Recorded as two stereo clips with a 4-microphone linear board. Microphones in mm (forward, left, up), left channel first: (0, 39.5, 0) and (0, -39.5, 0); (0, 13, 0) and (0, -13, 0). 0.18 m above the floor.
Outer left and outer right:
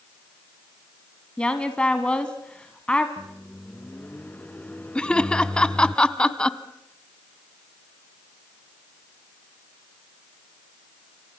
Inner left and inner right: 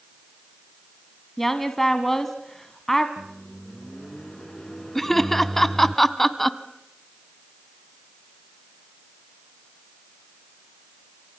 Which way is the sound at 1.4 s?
15° left (ahead or behind).